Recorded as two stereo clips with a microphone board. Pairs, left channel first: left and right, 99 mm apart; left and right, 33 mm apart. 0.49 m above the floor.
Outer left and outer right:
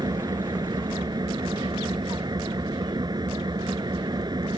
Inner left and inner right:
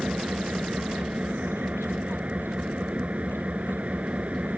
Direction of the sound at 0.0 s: 45° right (ahead or behind).